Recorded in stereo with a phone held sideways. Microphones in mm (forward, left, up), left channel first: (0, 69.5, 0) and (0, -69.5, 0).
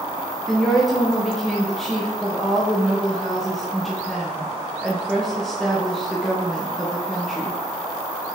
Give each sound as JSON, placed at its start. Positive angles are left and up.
{"t": 0.5, "sound": "a woman speaking", "side_deg": 0, "distance_m": 1.1}